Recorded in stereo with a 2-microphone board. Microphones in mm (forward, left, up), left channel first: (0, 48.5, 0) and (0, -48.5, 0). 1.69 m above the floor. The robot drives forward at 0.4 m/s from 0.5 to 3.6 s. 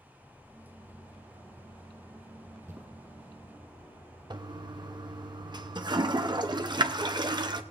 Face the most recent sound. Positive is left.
turn(degrees=-50)  # may be behind; listen again after turning